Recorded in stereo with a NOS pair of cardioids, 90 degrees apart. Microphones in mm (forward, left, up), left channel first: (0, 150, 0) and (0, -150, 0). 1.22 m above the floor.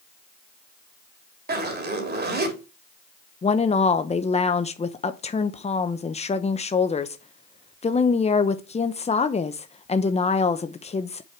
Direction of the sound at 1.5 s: 35° right.